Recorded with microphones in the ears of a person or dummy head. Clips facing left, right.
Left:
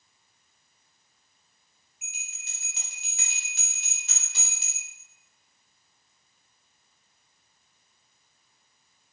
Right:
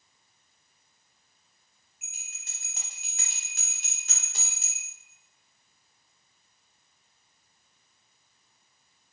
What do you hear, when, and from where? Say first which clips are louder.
2.0 s a bell: left 5 dB; 40° right (ahead or behind), 0.7 m